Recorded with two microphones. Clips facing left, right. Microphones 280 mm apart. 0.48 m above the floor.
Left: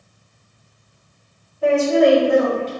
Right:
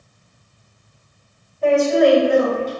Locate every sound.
1.6 s a woman speaking: 5° left (ahead or behind), 1.8 m; by 2.7 s 15° right (ahead or behind), 1.8 m